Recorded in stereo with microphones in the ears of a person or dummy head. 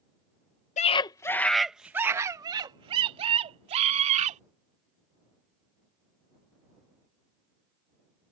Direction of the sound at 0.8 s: 30° left (ahead or behind).